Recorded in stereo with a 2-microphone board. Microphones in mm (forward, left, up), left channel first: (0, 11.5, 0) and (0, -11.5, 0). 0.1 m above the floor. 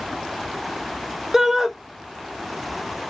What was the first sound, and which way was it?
A shout, 15° right (ahead or behind).